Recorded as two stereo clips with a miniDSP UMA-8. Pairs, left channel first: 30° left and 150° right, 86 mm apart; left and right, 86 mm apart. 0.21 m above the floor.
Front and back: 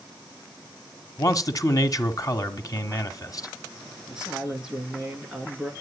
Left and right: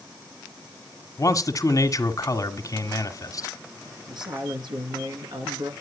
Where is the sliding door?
I don't hear a sliding door.